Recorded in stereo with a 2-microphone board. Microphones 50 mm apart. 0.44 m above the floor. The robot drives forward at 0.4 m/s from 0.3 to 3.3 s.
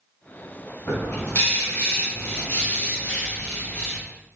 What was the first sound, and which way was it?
A bird, 60° left (ahead or behind).